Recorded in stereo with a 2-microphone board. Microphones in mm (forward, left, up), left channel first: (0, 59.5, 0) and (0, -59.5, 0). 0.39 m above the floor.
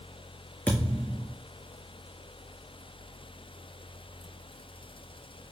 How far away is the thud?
About 3.5 m.